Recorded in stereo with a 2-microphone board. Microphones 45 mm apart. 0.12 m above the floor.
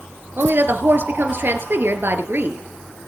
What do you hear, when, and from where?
0.4 s a woman speaking: 55° right (ahead or behind), 2.5 m